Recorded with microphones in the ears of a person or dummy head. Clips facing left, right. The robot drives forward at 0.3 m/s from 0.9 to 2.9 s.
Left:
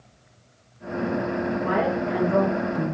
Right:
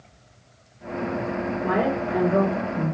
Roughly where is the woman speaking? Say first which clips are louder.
Right 2 dB; left.